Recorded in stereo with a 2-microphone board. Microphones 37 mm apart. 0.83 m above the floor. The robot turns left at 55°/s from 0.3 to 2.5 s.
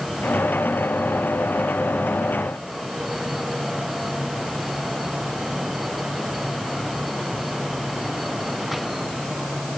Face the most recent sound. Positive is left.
No sound to turn to.